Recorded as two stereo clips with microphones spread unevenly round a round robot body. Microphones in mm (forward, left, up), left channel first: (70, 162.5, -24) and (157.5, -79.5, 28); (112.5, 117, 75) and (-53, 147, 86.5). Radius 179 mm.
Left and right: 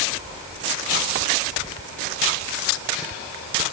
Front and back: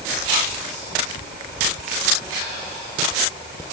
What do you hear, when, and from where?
Only background noise.